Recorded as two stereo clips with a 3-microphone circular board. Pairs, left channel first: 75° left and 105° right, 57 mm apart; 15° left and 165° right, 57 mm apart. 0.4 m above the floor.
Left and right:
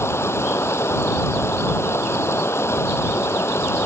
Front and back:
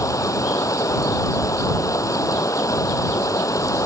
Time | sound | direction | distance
0.0 | running water | 35° left | ?